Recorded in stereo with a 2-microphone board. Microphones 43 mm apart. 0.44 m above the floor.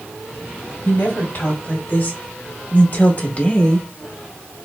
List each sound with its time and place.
0.8 s a woman speaking: 55° left (ahead or behind), 2.5 m; by 3.9 s 20° left (ahead or behind), 0.9 m